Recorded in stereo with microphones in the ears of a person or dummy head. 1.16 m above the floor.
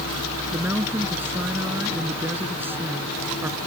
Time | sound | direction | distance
0.5 | a woman speaking | 10° right (ahead or behind) | ?